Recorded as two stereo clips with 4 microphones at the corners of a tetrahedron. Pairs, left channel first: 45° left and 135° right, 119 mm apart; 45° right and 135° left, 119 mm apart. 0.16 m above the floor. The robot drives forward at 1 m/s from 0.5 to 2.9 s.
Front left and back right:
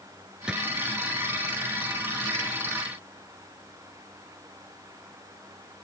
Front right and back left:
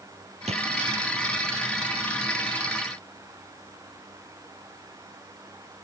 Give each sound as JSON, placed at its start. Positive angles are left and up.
{"t": 0.5, "sound": "a drawer", "azimuth_deg": 140}